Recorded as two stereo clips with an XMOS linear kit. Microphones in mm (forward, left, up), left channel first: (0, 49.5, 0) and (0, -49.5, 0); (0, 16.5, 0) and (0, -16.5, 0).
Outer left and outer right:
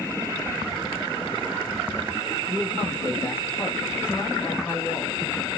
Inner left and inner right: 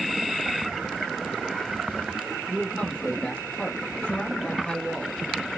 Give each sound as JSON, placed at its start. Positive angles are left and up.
{"t": 2.5, "sound": "a man speaking", "side_deg": 25, "distance_m": 1.2}